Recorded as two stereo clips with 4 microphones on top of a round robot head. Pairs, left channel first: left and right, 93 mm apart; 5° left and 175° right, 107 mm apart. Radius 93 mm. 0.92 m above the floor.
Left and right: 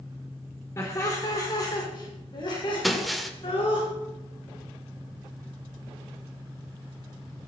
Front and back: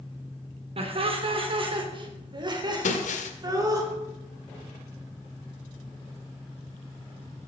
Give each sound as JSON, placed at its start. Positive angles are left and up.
{"t": 0.8, "sound": "laughter", "azimuth_deg": 155, "distance_m": 3.0}
{"t": 2.8, "sound": "breaking glass", "azimuth_deg": 0, "distance_m": 1.6}